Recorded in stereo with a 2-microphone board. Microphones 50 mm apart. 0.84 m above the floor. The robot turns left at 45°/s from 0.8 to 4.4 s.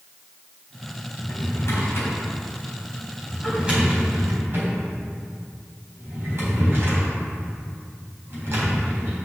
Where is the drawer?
90° left, 4 m; by 9.2 s 55° right (ahead or behind), 4 m.